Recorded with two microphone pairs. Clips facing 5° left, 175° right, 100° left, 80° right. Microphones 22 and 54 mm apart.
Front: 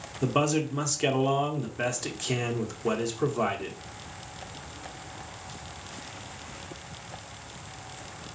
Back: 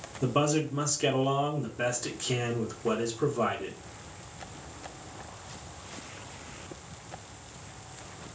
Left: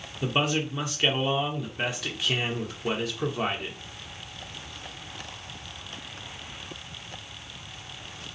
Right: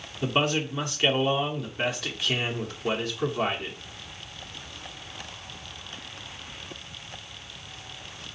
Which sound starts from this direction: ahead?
A man speaking, at 0.2 s.